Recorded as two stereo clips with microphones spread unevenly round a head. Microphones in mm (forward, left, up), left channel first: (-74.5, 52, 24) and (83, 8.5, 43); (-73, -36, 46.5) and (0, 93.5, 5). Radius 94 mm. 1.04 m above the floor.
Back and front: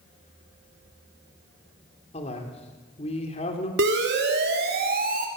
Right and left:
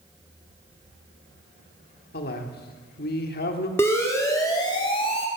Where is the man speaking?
140° right, 3 m.